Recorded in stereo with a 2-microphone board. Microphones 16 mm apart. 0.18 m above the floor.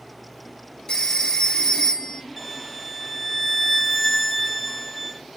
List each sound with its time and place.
0.9 s a phone ringing: 50° left (ahead or behind), 1.1 m
2.4 s a violin: centre (ahead or behind), 1.4 m